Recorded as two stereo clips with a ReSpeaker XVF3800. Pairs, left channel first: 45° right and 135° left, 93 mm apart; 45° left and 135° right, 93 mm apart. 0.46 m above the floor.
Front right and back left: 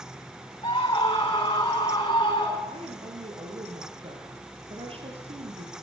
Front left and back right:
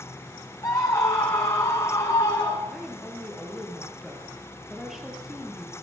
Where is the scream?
5° right, 3.5 m.